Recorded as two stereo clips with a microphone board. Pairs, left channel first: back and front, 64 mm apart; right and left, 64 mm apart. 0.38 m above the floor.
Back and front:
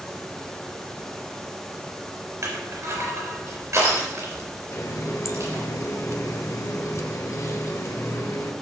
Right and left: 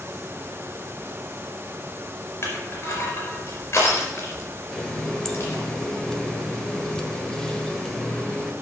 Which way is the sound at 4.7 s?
165° right.